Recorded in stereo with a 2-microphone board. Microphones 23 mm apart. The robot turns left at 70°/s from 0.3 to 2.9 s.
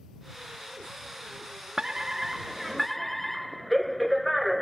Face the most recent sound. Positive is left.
turn(degrees=170)